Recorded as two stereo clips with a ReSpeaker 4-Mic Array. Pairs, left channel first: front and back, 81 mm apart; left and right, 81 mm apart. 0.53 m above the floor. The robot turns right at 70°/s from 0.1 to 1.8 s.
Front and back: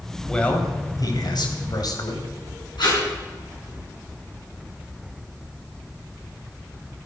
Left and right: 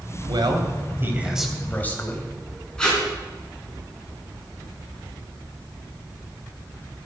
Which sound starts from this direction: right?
A man speaking, at 0.3 s.